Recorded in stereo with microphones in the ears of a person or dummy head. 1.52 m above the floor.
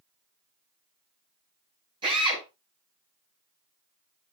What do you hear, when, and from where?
2.0 s a drill: 25° right (ahead or behind), 9 m